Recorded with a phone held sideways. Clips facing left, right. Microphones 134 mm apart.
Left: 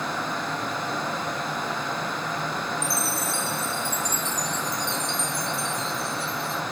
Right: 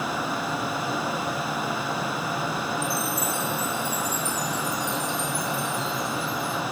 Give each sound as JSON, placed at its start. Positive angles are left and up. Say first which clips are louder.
{"t": 0.0, "sound": "a fan", "louder": "right 1 dB", "side_deg": -5, "distance_m": 0.8}
{"t": 2.8, "sound": "a chime", "louder": "right 1 dB", "side_deg": 65, "distance_m": 0.7}